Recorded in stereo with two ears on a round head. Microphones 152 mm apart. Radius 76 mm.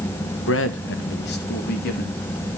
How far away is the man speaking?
About 1.4 m.